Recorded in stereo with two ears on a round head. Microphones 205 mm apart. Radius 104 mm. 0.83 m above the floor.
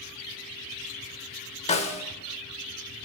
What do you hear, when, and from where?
1.7 s a snare drum: 30° left (ahead or behind), 0.8 m